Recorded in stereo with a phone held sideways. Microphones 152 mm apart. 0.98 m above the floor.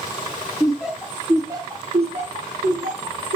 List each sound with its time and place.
0.6 s laughter: centre (ahead or behind), 1.5 m; by 3.4 s 65° right (ahead or behind), 1.4 m